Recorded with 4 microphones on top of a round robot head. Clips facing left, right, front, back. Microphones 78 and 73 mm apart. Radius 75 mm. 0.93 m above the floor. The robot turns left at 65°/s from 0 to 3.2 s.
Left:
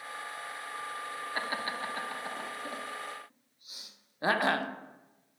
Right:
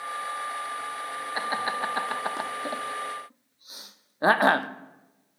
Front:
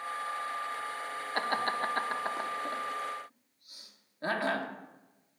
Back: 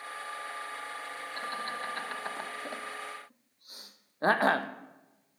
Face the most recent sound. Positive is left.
turn(degrees=-135)